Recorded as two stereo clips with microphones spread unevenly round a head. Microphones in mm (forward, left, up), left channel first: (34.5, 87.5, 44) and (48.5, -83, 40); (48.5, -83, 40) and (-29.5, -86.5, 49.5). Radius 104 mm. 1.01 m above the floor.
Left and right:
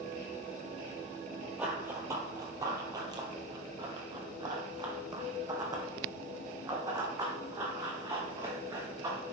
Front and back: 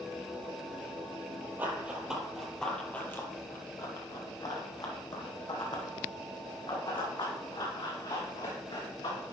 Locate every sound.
1.6 s running footsteps: 165° right, 1.1 m; by 9.3 s 15° right, 4 m